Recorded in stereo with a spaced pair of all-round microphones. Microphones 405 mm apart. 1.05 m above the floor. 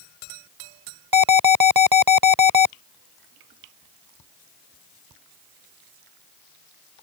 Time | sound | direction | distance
1.1 | an alarm | 60° right (ahead or behind) | ?